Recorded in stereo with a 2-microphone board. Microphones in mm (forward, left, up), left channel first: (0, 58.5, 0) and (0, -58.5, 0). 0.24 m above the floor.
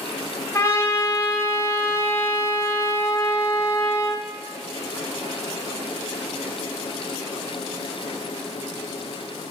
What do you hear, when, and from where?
0.5 s a trumpet: 25° left (ahead or behind), 5 m